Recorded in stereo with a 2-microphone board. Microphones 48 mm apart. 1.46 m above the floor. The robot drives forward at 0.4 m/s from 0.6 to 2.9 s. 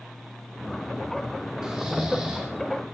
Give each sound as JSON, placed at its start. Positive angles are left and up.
{"t": 1.6, "sound": "snoring", "side_deg": -15, "distance_m": 4.5}